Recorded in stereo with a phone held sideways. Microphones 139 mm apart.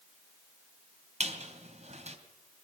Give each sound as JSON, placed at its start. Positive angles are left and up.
{"t": 1.2, "sound": "a squeak", "side_deg": -55, "distance_m": 3.0}